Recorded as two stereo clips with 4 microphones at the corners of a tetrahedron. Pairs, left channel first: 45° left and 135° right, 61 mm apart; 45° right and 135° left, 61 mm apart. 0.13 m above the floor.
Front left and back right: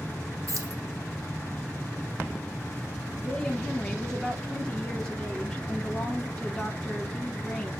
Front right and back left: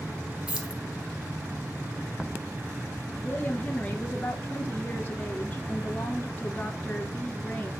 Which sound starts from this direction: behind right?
Keys jangling, at 0.5 s.